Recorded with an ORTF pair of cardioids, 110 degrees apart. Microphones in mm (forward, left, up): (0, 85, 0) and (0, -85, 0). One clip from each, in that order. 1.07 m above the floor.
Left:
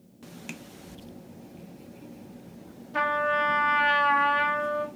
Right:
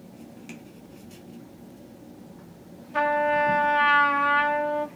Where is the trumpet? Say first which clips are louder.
Right 2 dB; 5° right, 0.5 m.